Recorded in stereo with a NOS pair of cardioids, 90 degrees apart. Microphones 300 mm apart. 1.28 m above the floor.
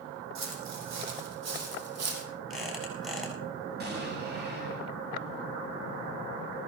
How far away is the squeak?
About 7 m.